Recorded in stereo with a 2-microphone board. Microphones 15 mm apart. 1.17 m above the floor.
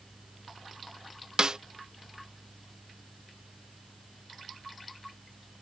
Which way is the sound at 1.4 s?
50° right (ahead or behind).